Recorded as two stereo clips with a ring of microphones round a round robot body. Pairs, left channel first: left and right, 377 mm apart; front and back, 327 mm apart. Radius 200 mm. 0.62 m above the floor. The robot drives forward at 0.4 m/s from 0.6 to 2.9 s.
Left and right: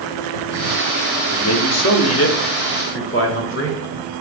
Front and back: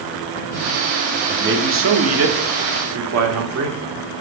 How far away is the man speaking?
About 1.1 m.